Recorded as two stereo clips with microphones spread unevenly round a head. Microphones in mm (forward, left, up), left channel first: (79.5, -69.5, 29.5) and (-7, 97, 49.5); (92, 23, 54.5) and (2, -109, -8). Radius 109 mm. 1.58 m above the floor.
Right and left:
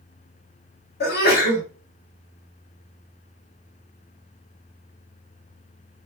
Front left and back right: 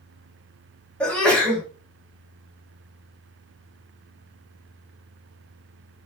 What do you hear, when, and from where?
1.0 s a sneeze: 25° right, 2 m